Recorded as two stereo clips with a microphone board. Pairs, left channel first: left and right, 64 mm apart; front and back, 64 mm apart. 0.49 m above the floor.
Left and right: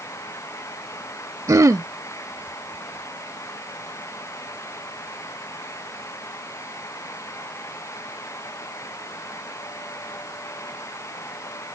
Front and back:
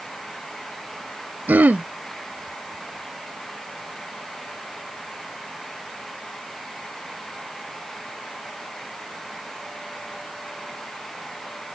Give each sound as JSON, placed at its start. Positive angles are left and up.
{"t": 1.5, "sound": "throat clearing", "azimuth_deg": -120}